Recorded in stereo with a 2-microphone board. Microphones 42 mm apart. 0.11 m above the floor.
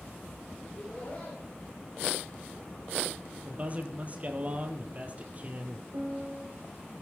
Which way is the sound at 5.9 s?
75° right (ahead or behind).